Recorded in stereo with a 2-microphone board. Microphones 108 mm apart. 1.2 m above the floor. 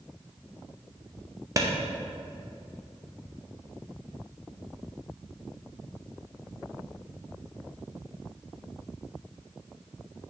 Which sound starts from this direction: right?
A clap, at 1.6 s.